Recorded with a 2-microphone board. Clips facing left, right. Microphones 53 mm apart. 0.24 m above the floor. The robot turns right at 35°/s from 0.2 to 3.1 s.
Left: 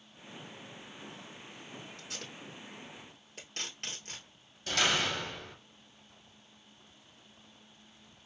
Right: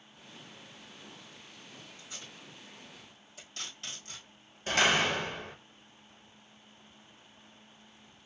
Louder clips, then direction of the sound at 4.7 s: Right 4 dB; 30° right (ahead or behind).